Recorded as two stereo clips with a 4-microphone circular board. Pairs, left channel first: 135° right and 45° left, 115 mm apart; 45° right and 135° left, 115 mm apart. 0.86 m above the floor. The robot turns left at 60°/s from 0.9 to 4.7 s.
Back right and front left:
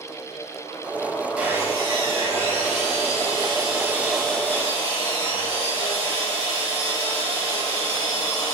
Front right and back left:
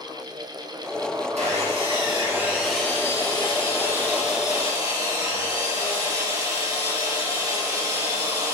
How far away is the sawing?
About 2.5 m.